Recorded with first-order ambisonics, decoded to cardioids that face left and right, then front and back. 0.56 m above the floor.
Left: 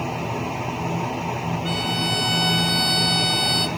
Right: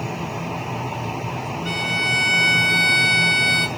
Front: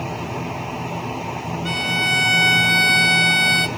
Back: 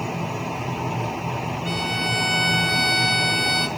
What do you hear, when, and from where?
1.6 s a violin: 10° left, 2 m